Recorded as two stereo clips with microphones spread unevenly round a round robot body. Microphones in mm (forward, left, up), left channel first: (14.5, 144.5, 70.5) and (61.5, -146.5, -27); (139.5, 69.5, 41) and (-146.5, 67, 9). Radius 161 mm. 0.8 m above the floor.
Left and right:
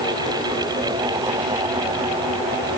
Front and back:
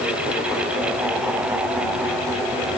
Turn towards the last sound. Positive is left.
No sound to turn to.